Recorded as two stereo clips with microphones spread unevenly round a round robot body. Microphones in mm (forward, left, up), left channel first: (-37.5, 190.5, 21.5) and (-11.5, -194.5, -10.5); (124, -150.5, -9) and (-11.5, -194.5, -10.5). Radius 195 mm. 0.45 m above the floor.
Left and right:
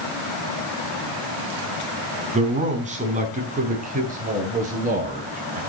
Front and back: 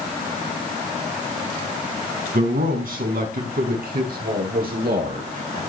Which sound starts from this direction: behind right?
A man speaking, at 2.3 s.